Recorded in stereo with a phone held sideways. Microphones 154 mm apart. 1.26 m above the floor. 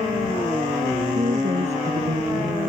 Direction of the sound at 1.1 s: 45° right (ahead or behind).